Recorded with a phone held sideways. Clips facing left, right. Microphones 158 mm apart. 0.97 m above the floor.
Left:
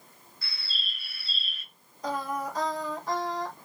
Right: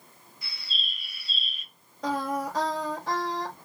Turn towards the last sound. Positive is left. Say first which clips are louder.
# right 3 dB
turn(degrees=-85)